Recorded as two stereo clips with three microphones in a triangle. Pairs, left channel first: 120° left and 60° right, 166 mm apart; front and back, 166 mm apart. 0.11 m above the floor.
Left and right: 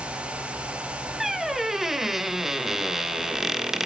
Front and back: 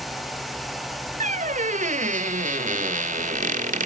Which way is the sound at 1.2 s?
150° right.